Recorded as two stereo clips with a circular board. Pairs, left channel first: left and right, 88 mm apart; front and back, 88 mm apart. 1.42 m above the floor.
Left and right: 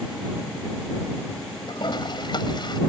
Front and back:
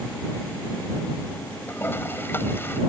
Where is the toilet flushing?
65° left.